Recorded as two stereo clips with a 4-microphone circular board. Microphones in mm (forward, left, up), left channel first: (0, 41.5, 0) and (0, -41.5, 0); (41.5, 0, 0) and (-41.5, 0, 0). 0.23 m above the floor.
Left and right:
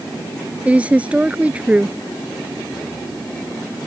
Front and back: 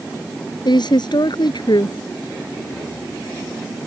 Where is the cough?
No cough in this recording.